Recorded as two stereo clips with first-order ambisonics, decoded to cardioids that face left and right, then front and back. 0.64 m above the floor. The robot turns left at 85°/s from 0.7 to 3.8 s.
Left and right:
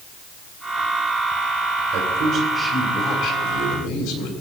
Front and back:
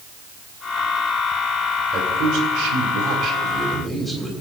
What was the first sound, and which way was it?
A man speaking, 120° right.